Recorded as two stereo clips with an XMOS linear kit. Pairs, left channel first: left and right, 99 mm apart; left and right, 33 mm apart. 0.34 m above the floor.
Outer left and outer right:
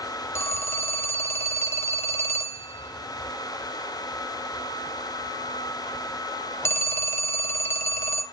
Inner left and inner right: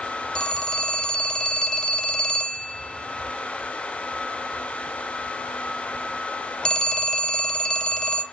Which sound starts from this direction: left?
A phone ringing, at 0.3 s.